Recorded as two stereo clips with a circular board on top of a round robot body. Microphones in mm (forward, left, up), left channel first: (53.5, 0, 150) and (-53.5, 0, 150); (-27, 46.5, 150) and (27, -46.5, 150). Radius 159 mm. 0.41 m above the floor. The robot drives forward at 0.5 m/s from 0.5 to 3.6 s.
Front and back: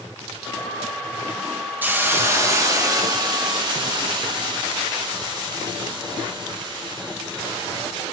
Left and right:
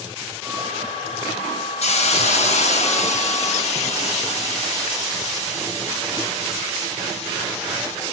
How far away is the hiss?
About 1.8 m.